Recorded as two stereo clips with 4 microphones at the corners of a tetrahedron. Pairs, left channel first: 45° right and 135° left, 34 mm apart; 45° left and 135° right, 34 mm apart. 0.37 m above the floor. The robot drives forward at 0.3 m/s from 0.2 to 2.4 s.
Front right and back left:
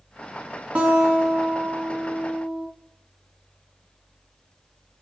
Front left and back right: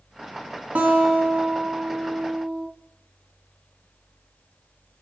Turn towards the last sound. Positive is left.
turn(degrees=-175)